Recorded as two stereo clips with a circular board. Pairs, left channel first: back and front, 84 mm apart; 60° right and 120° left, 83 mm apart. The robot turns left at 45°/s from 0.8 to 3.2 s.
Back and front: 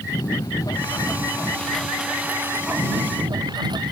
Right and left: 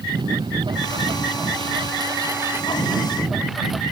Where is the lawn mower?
140° left; by 3.9 s 30° left.